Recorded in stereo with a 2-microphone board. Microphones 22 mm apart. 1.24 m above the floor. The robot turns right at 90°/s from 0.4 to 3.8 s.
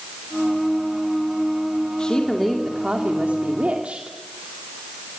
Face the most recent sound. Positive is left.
turn(degrees=-60)